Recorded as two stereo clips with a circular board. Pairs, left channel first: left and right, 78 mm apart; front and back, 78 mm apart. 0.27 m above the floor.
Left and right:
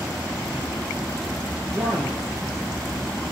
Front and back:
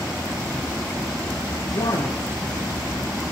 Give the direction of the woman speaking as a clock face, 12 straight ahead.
12 o'clock.